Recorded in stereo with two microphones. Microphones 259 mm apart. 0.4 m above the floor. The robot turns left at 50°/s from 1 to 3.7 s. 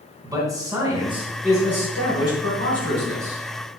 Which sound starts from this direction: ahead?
A man speaking, at 0.2 s.